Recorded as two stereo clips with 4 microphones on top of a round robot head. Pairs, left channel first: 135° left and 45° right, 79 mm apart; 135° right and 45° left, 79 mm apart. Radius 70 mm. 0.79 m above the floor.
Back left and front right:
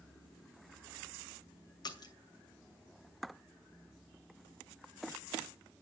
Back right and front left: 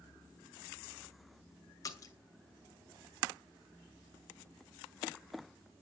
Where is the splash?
175° left, 2.5 m.